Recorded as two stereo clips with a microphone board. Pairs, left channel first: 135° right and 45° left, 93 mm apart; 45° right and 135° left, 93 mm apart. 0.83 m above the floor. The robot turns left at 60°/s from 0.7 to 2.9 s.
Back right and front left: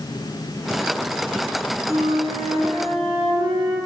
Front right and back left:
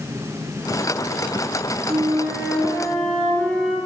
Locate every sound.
1.9 s a flute: 100° left, 6 m; by 3.8 s 35° left, 6 m